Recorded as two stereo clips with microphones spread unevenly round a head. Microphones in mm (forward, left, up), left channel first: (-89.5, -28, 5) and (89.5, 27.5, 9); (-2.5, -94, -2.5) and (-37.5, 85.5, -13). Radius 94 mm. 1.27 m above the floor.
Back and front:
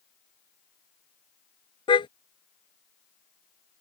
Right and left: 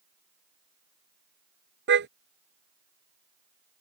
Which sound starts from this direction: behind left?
A car horn, at 1.9 s.